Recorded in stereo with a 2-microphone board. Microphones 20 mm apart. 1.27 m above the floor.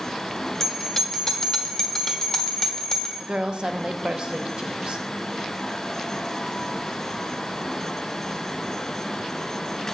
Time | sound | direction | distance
0.6 | a bell | 20° left (ahead or behind) | 1.0 m
3.2 | a woman speaking | 50° right (ahead or behind) | 0.6 m